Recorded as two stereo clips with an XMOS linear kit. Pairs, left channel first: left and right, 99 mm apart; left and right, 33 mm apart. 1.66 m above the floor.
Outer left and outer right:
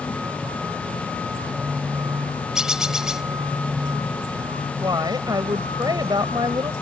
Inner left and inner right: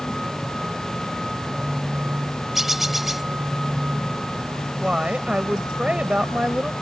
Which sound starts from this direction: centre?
A bird, at 2.5 s.